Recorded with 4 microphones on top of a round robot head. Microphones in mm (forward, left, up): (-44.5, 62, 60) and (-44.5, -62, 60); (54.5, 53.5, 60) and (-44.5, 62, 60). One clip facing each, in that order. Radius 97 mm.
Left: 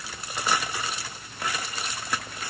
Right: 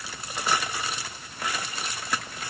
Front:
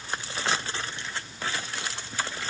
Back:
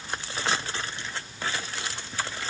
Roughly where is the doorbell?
No doorbell in this recording.